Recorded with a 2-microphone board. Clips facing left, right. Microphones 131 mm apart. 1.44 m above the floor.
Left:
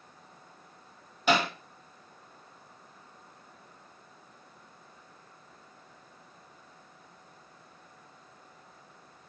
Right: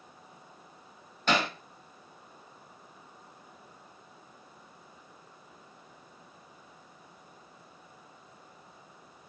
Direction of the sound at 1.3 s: 10° left (ahead or behind).